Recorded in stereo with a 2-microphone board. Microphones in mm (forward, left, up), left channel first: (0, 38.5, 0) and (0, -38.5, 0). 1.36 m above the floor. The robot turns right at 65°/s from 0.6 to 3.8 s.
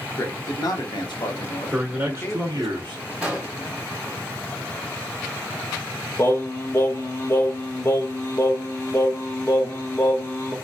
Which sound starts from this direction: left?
Singing, at 6.2 s.